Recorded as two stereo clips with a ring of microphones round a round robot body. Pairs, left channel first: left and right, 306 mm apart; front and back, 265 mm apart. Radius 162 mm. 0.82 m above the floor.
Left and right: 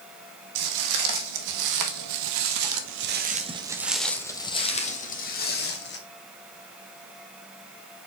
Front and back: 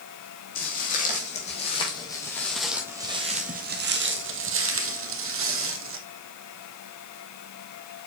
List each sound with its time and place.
0.6 s footsteps: 65° right, 2 m; by 6.0 s 145° left, 1.9 m